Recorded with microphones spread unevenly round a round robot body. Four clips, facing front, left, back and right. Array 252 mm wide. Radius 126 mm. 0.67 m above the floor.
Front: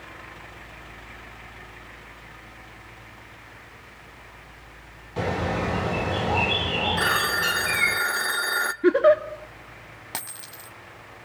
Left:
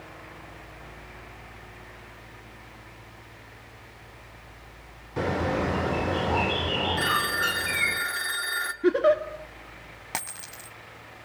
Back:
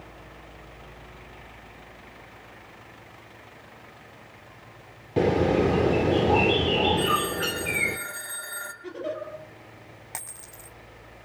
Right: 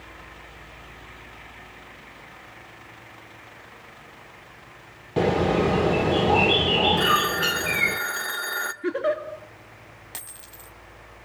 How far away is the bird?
About 2.5 m.